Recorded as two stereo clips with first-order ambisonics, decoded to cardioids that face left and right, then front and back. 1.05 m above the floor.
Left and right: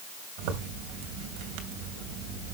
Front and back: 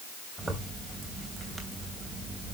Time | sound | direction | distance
0.4 | a zipper | 105° right | 3 m